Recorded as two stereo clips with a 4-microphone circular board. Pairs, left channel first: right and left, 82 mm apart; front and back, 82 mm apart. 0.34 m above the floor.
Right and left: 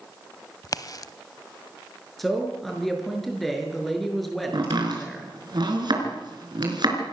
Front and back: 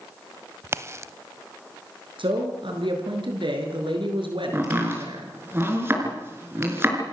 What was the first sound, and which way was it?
A crack, 130° right.